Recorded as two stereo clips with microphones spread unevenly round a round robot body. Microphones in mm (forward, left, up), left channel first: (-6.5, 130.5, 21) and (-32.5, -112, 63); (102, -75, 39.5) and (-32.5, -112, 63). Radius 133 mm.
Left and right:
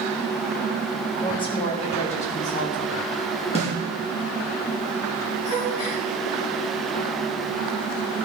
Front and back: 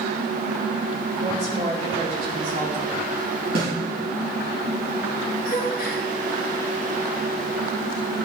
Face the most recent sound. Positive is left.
turn(degrees=55)